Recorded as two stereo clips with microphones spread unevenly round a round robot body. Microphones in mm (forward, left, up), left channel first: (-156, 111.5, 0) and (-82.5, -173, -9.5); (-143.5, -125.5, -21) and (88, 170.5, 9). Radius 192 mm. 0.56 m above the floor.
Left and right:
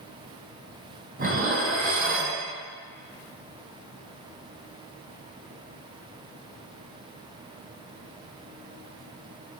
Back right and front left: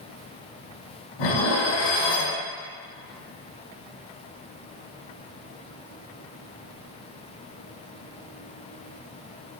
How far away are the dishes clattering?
About 3 m.